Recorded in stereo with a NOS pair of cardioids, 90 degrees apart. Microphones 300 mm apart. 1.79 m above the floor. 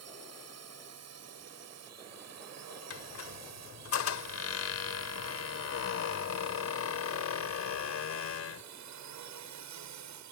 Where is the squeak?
55° left.